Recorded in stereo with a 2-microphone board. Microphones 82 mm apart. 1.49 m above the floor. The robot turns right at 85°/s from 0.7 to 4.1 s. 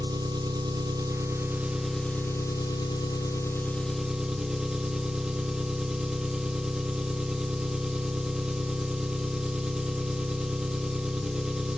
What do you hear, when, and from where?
0.0 s an engine running: 95° right, 1.2 m; by 11.8 s 170° right, 1.2 m